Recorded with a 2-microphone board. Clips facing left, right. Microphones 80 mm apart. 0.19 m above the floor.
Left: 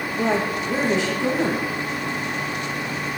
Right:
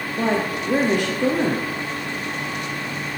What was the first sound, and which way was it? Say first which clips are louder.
A woman speaking: even; 60° right (ahead or behind).